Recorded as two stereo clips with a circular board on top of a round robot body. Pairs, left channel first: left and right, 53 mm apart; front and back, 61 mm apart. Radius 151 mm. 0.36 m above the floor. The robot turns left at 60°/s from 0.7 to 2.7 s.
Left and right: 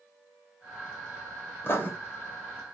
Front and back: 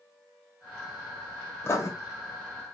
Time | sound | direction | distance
1.6 | writing | 50° left | 1.8 m